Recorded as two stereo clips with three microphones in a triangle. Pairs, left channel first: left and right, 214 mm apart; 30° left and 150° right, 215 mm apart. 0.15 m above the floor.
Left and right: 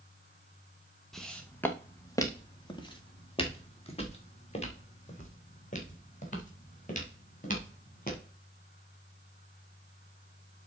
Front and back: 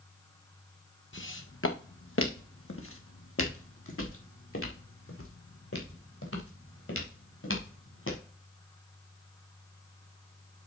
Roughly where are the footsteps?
Ahead.